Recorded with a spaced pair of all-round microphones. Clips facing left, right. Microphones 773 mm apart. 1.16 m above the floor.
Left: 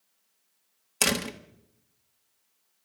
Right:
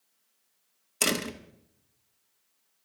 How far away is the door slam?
About 1.1 m.